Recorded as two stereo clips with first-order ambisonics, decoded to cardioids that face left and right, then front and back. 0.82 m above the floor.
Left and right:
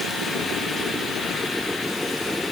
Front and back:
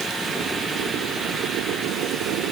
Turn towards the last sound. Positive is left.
No sound to turn to.